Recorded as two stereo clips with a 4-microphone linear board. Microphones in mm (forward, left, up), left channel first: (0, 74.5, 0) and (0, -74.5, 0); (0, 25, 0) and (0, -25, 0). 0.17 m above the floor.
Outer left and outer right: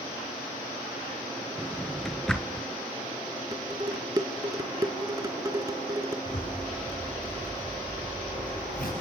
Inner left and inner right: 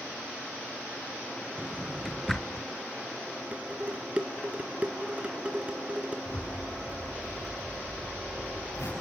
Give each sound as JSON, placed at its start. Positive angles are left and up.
{"t": 1.6, "sound": "a drawer", "side_deg": 5, "distance_m": 1.5}
{"t": 3.5, "sound": "dishes clattering", "side_deg": -25, "distance_m": 1.7}
{"t": 6.2, "sound": "a zipper", "side_deg": 75, "distance_m": 8.5}